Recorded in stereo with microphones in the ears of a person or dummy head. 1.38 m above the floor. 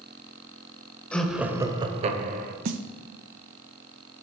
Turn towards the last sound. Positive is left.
turn(degrees=-45)  # may be behind; listen again after turning